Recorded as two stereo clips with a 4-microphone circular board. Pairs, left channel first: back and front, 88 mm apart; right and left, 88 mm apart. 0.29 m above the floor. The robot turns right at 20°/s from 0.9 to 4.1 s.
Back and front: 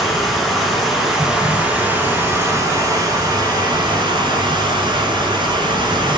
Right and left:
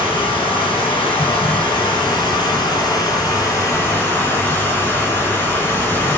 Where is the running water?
90° right, 1.4 m; by 6.2 s 25° right, 1.4 m.